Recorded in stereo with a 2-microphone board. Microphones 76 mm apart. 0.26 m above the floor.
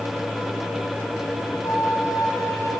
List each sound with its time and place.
1.6 s a flute: 40° left (ahead or behind), 5.5 m